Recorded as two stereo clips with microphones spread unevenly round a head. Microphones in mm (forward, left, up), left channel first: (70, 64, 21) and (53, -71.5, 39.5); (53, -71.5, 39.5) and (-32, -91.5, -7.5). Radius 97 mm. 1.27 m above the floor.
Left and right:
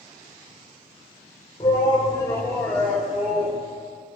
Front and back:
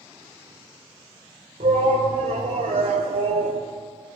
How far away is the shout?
About 4 m.